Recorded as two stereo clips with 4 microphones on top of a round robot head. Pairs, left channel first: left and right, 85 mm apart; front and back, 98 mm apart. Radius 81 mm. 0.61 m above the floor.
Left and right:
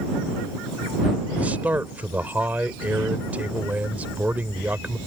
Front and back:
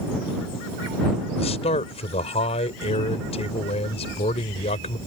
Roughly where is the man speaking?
Ahead.